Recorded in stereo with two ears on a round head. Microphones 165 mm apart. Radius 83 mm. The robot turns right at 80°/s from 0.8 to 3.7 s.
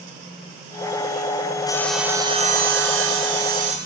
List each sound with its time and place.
1.7 s sawing: 160° left, 6 m; by 3.8 s 40° right, 6 m